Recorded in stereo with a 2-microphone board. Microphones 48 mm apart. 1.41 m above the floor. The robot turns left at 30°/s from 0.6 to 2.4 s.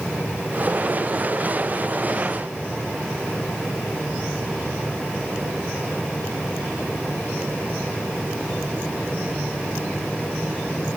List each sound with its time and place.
Only background noise.